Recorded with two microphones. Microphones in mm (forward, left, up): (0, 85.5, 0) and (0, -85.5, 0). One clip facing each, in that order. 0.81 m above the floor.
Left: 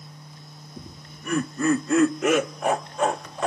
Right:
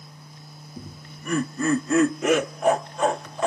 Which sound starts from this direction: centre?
Laughter, at 0.8 s.